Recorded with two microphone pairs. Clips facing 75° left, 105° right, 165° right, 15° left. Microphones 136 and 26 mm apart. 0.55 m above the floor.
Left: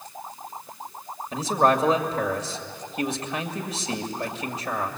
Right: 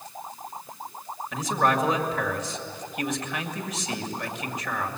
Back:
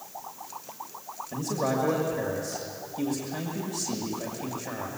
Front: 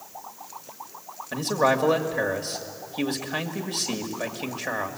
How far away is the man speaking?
About 2 m.